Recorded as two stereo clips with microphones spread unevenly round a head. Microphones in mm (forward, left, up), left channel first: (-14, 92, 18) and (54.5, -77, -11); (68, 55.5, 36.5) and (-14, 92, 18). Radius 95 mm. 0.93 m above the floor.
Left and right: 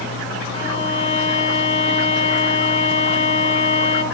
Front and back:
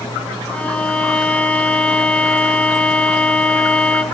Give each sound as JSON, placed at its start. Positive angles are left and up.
{"t": 0.5, "sound": "a violin", "azimuth_deg": 55, "distance_m": 5.0}